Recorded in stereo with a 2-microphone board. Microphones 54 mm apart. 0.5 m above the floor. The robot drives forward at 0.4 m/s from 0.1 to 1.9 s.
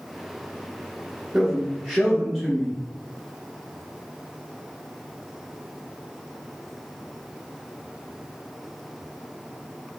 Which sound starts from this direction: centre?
A man speaking, at 1.3 s.